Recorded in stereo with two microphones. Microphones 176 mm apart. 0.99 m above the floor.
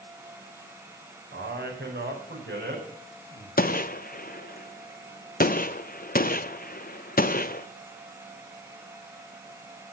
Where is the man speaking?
85° right, 4 m; by 3.5 s 70° right (ahead or behind), 5.5 m.